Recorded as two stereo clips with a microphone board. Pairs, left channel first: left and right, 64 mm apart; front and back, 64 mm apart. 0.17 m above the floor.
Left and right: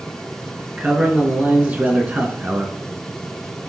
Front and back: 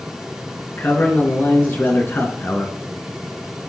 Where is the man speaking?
30° right, 1.6 m.